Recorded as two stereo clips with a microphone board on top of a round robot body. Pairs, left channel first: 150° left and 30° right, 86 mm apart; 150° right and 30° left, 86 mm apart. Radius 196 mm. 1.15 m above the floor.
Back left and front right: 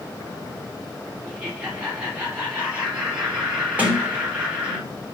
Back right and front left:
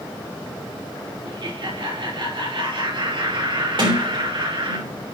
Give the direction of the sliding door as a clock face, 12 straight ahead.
11 o'clock.